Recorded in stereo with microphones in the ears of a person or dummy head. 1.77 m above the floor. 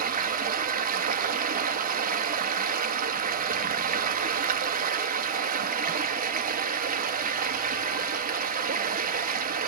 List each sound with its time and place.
0.0 s running water: 45° right (ahead or behind), 1.2 m